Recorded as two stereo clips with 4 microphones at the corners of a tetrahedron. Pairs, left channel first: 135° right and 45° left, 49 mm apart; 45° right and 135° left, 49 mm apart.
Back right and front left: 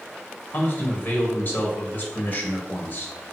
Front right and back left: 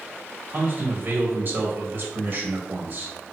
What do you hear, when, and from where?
0.5 s a man speaking: 175° left, 2 m